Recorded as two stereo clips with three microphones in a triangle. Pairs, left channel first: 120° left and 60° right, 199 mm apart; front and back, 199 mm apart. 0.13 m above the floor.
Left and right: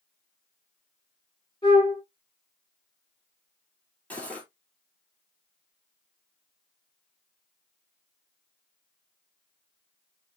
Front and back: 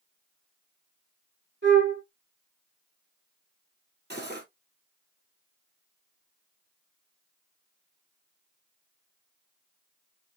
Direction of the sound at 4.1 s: 160° right.